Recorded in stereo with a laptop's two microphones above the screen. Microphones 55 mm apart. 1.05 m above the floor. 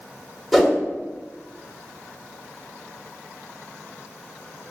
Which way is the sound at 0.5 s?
5° left (ahead or behind).